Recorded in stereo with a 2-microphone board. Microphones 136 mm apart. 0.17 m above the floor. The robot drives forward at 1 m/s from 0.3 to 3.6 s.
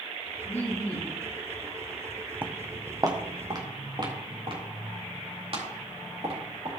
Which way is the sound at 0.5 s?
15° left (ahead or behind).